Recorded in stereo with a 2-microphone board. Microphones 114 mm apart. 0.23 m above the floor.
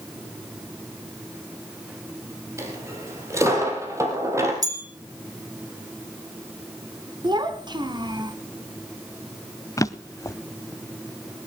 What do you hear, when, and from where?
2.6 s a dropped coin: 25° right (ahead or behind), 3.5 m
4.6 s a bell: 35° right (ahead or behind), 1.9 m
7.2 s a child speaking: 40° right (ahead or behind), 1.3 m
9.8 s a drawer: 30° left (ahead or behind), 0.6 m